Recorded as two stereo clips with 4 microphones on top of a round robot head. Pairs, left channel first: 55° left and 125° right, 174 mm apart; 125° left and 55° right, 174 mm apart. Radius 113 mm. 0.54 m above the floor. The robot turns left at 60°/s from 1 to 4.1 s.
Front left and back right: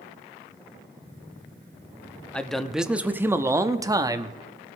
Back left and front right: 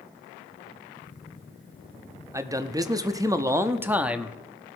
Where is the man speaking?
20° right, 0.9 m; by 4.4 s 125° right, 0.9 m.